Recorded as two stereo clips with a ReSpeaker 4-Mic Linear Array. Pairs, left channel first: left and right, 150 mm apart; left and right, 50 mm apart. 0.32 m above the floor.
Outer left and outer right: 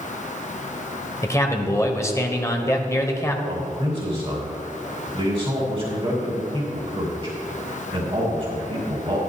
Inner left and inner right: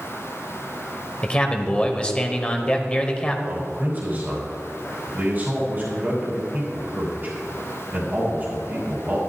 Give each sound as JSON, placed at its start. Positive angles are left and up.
{"t": 1.2, "sound": "a man speaking", "side_deg": 20, "distance_m": 1.2}
{"t": 3.5, "sound": "a man speaking", "side_deg": -40, "distance_m": 2.5}